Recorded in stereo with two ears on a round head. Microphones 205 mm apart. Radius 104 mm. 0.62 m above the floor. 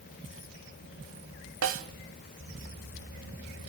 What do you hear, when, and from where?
1.6 s a snare drum: 65° right (ahead or behind), 1.1 m